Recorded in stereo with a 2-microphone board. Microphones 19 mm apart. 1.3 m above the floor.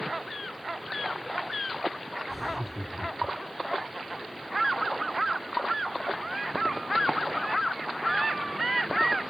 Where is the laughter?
15° right (ahead or behind).